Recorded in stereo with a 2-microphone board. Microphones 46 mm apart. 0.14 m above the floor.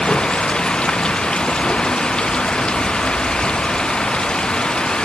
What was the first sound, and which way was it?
Running water, 20° left (ahead or behind).